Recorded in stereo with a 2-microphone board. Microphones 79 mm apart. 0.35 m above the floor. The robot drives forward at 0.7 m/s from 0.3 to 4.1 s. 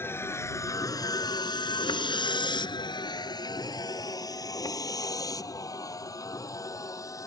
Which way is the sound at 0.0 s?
30° left (ahead or behind).